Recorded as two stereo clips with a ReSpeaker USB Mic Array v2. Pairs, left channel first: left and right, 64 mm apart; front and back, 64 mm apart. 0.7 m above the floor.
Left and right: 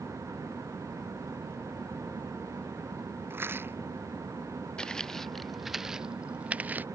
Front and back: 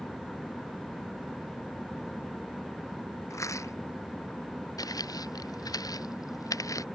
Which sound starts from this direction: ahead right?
A rattle, at 3.3 s.